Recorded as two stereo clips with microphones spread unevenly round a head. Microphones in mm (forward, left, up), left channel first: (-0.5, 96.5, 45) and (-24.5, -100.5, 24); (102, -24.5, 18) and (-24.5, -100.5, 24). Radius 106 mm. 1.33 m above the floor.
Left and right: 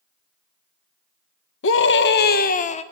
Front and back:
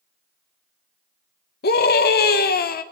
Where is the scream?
55° left, 1.9 m; by 2.8 s 20° left, 1.4 m.